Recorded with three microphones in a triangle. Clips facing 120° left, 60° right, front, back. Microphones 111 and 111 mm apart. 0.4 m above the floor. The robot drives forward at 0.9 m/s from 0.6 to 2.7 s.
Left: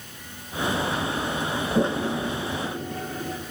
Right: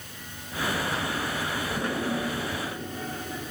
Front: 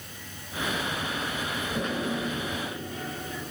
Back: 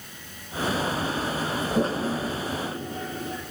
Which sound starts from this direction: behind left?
A toilet flushing, at 1.8 s.